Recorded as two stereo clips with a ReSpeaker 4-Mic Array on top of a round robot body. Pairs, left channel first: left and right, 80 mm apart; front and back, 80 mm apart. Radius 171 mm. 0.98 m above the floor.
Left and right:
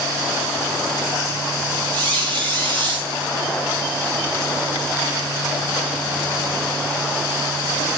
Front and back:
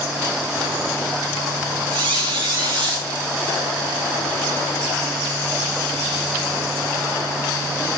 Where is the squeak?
160° left, 0.8 m.